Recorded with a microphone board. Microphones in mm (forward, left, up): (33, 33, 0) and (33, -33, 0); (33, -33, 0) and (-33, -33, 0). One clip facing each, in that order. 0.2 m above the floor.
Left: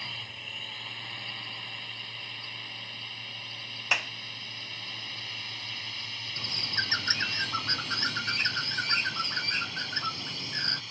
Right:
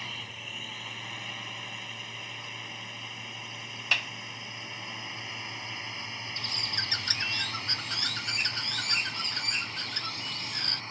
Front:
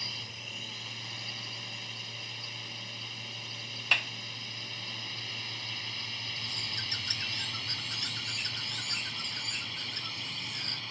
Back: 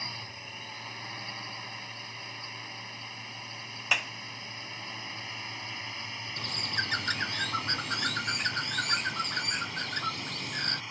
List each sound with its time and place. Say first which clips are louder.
0.0 s a drone: right 1 dB, back 2 dB; 175° right; by 10.9 s 115° right
3.9 s a clap: left 1 dB, back 1 dB; 120° left
6.4 s a bird: left 4 dB, back 6 dB; 150° left